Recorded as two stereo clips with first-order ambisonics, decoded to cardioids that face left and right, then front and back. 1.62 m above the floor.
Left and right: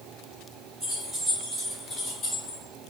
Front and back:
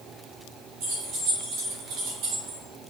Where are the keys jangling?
170° right, 1.9 m; by 2.6 s 140° left, 1.3 m.